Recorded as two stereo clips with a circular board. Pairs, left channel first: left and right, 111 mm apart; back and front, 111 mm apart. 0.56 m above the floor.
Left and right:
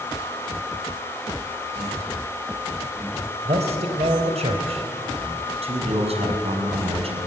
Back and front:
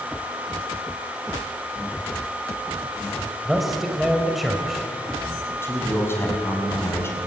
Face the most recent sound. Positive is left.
turn(degrees=-115)